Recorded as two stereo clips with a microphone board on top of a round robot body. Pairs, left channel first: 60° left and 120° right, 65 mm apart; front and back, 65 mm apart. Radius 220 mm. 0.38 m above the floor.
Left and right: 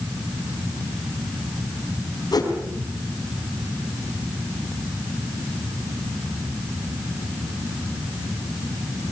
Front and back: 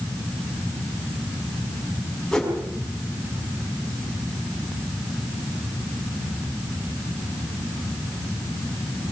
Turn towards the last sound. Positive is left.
turn(degrees=85)